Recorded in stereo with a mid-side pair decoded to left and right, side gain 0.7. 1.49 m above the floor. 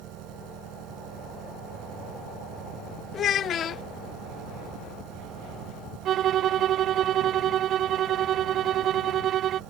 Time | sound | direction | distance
0.0 | an engine running | 60° right | ?
3.1 | a child speaking | 40° left | ?
6.0 | a violin | 45° right | ?